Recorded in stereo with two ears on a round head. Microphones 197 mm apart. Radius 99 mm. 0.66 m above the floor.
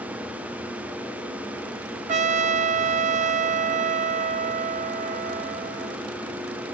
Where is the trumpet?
35° right (ahead or behind), 0.8 m.